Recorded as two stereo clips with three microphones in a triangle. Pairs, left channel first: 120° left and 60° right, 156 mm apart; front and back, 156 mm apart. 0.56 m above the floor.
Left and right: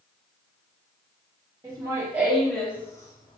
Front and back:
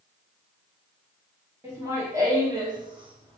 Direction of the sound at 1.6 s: 110° right.